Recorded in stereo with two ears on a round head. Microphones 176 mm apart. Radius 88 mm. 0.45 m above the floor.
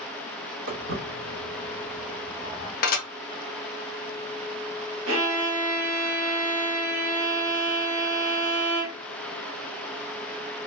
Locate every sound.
0.7 s footsteps: 65° right (ahead or behind), 1.3 m; by 2.7 s centre (ahead or behind), 1.1 m
2.8 s dishes clattering: 45° left (ahead or behind), 0.6 m
5.1 s a violin: 75° right (ahead or behind), 0.7 m